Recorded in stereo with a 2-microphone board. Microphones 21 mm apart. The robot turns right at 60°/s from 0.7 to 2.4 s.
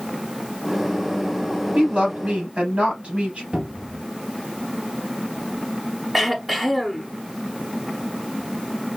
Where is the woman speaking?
125° right, 3.5 m; by 3.4 s 90° right, 3.5 m.